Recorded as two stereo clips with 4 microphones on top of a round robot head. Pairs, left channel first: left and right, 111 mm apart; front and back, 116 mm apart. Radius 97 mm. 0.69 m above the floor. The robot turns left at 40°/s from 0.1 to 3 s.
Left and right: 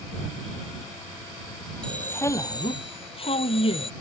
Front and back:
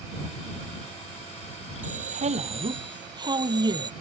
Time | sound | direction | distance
1.8 | a man speaking | 175° left | ?